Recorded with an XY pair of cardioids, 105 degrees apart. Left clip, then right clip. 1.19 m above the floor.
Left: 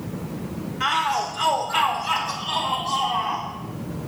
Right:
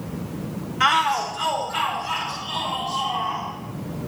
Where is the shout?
45° right, 0.6 m; by 3.5 s 50° left, 3.5 m.